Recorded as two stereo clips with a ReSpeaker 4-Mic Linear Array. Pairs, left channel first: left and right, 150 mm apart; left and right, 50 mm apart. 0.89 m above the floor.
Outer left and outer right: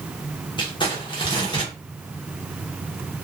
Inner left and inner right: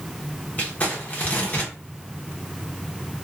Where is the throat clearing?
No throat clearing in this recording.